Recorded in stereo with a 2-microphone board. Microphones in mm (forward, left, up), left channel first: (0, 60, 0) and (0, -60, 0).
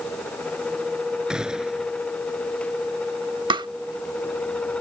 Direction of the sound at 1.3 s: 5° right (ahead or behind).